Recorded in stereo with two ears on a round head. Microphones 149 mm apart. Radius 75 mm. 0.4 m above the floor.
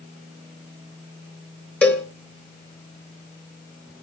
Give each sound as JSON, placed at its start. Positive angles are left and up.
{"t": 1.8, "sound": "a cowbell", "side_deg": 10, "distance_m": 2.5}